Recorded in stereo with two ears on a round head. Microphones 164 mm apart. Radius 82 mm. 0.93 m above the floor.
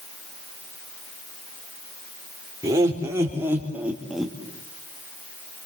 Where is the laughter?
20° right (ahead or behind), 3.5 m; by 4.3 s centre (ahead or behind), 1.6 m.